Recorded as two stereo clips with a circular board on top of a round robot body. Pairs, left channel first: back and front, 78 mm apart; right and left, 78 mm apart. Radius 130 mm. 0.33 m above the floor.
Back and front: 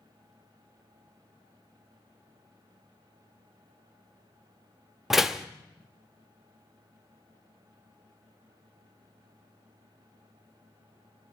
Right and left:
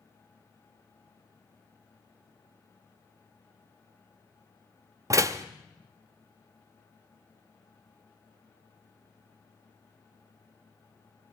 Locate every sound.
5.1 s a door slam: 85° left, 0.9 m